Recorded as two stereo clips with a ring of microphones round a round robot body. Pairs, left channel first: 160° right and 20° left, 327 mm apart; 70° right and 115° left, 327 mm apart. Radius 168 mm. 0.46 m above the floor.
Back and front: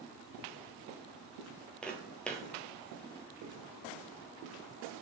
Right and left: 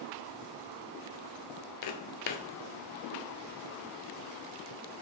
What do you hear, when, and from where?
1.8 s footsteps: 70° right, 0.5 m